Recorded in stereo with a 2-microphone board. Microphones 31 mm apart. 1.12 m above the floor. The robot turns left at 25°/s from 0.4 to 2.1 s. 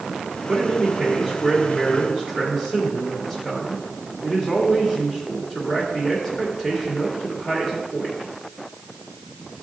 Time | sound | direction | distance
0.5 | a man speaking | 160° right | 2.5 m